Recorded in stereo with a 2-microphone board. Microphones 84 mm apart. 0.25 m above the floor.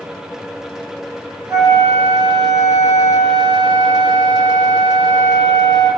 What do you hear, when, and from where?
1.5 s a flute: 50° right (ahead or behind), 1.0 m